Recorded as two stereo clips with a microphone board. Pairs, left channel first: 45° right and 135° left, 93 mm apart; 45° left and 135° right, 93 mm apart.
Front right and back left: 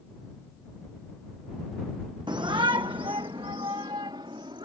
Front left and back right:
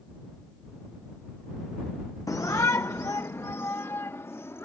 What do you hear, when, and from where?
2.3 s a shout: 100° left; by 4.6 s 105° left